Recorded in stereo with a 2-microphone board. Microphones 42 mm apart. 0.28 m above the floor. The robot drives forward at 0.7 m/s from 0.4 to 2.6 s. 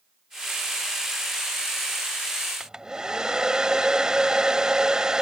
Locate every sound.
2.6 s a hair dryer: 20° right (ahead or behind)